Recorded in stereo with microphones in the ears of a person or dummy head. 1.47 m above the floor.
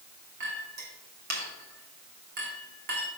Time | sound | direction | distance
0.4 | a clink | 60° right (ahead or behind) | 2.5 m